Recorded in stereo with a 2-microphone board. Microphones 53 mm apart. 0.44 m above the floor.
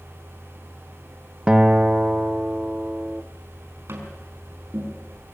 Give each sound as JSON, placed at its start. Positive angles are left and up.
{"t": 1.5, "sound": "a guitar", "side_deg": -20, "distance_m": 0.7}
{"t": 3.9, "sound": "tapping", "side_deg": -55, "distance_m": 5.5}